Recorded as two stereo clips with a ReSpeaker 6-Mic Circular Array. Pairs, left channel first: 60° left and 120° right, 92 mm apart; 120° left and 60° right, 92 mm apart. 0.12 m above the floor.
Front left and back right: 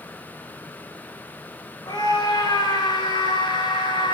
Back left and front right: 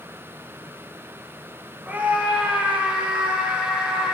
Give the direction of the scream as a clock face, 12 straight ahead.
12 o'clock.